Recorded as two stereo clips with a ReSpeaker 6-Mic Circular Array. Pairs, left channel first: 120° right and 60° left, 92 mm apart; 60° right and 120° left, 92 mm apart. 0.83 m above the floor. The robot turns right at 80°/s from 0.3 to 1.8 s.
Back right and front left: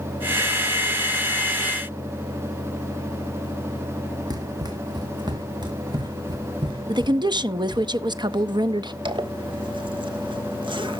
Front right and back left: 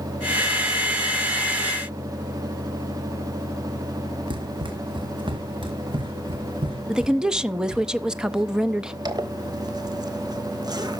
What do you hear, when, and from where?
4.3 s running footsteps: 100° left, 2 m; by 7.9 s 90° left, 4 m
6.9 s a woman speaking: 40° left, 0.6 m
9.1 s a zipper: 80° left, 1.2 m